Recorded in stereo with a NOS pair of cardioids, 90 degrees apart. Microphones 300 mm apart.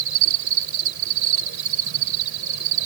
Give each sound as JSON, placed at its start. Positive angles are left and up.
{"t": 0.0, "sound": "an insect", "azimuth_deg": -70}